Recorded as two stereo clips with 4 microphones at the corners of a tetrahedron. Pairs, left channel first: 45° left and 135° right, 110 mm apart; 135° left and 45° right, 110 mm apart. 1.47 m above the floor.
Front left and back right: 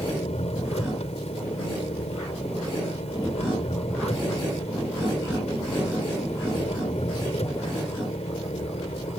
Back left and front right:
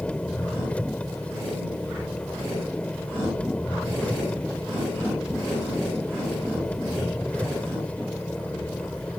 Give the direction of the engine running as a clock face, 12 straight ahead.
10 o'clock.